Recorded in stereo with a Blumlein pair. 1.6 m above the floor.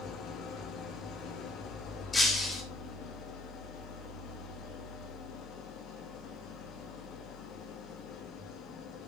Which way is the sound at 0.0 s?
30° left.